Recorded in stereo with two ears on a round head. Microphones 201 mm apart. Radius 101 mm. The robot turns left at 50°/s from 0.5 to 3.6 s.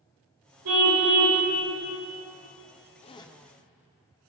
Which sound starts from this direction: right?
A car horn, at 0.7 s.